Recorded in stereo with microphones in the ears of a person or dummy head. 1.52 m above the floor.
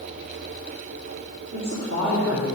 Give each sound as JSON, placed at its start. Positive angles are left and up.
{"t": 1.5, "sound": "a woman speaking", "side_deg": -55, "distance_m": 3.0}